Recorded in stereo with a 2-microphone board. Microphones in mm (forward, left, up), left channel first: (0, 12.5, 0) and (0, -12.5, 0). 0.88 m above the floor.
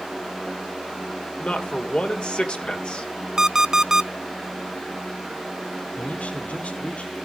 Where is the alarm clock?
25° right (ahead or behind), 0.5 m.